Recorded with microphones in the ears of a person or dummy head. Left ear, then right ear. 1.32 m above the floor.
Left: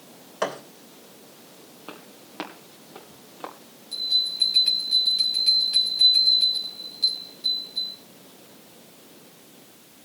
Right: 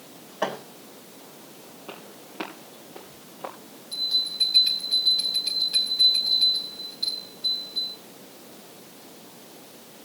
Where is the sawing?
I don't hear sawing.